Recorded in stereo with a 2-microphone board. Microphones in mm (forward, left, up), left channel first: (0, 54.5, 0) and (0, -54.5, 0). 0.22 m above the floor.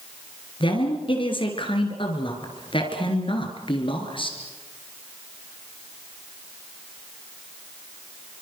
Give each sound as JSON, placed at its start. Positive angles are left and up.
{"t": 0.6, "sound": "a woman speaking", "side_deg": 50, "distance_m": 4.0}